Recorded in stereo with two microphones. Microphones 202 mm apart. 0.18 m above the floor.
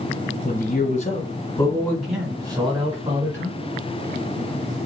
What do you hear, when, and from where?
0.4 s a man speaking: 45° left (ahead or behind), 2 m; by 3.6 s 45° right (ahead or behind), 2.0 m